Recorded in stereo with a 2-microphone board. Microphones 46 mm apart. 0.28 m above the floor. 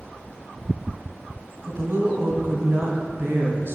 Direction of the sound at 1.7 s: 55° right (ahead or behind).